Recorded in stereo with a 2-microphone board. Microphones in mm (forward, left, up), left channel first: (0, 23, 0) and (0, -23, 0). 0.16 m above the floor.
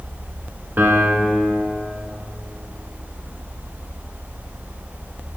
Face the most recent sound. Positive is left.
turn(degrees=-50)  # may be behind; listen again after turning